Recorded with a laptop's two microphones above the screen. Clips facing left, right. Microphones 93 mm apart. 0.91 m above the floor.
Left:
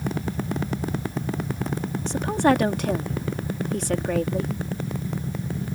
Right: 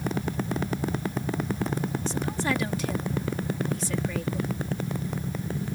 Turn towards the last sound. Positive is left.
turn(degrees=65)  # may be behind; listen again after turning